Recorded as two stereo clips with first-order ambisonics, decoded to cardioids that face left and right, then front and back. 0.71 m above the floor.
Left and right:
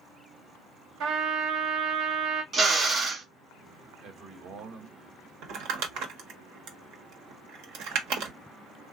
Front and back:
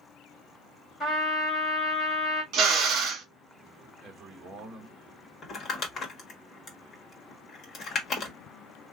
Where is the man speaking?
120° right, 1.5 m.